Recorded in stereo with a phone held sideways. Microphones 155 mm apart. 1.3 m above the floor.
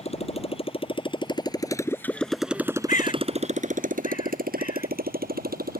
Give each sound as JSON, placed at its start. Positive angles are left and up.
{"t": 0.0, "sound": "a motorcycle", "side_deg": 45}
{"t": 2.9, "sound": "a bird", "side_deg": 65}